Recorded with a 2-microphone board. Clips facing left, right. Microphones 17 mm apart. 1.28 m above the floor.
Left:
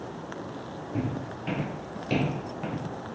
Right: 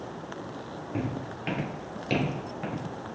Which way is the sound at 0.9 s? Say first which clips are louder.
Left 1 dB; 45° right (ahead or behind).